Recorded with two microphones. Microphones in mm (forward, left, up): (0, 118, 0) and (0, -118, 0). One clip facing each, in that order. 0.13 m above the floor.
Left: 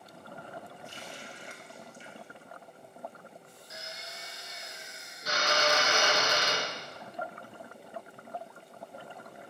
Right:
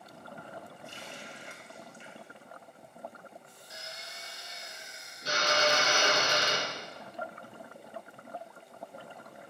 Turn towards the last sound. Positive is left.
turn(degrees=-30)  # may be behind; listen again after turning